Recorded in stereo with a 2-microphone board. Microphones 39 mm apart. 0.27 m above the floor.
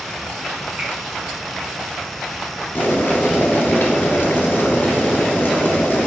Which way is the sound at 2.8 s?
70° left (ahead or behind).